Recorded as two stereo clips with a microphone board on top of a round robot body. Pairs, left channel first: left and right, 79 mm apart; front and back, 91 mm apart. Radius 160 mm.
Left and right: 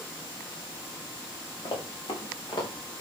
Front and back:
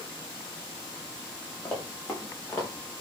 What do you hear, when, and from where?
1.6 s running footsteps: 65° left, 6 m; by 2.7 s 60° left, 6 m